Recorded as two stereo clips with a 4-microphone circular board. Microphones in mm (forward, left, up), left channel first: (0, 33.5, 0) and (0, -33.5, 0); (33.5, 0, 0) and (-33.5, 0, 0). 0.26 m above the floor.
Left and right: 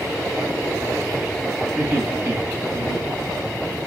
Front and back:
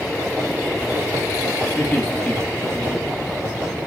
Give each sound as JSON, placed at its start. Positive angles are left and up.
{"t": 1.8, "sound": "laughter", "azimuth_deg": -35, "distance_m": 2.0}